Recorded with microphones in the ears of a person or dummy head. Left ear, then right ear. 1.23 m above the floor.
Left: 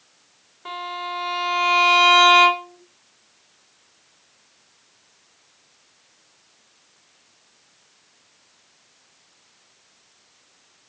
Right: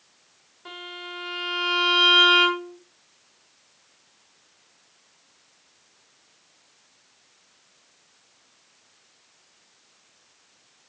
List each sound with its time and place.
0.7 s a violin: 20° left (ahead or behind), 2.5 m